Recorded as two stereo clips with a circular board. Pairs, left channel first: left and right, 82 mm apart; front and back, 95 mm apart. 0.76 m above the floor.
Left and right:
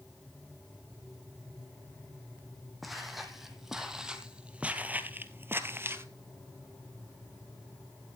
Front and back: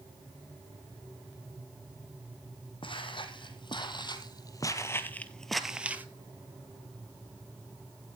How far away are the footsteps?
About 1.8 m.